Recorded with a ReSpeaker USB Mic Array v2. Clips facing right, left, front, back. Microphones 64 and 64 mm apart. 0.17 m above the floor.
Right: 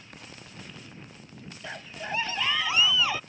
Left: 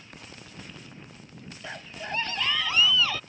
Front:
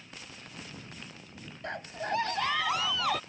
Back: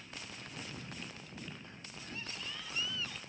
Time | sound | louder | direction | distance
1.6 | a scream | right 1 dB, front 15 dB | straight ahead | ?